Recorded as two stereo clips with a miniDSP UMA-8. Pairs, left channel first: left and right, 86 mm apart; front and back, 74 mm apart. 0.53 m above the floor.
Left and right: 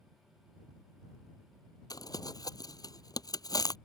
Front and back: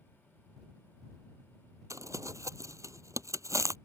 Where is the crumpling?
130° left.